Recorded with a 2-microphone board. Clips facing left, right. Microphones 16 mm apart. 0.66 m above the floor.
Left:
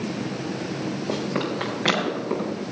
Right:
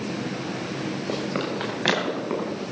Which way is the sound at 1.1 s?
10° right (ahead or behind).